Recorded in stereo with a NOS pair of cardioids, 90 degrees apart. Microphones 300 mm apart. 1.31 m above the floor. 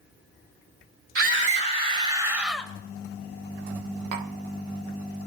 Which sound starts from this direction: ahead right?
A scream, at 1.1 s.